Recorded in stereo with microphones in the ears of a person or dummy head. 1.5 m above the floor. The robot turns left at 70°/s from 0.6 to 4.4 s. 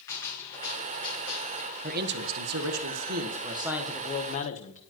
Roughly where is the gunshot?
Behind.